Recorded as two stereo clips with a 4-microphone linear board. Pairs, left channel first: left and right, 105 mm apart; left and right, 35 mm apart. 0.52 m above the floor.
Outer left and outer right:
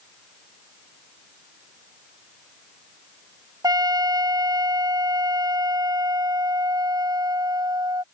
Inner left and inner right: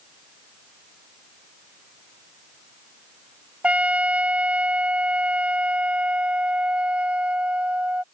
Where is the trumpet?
40° right (ahead or behind).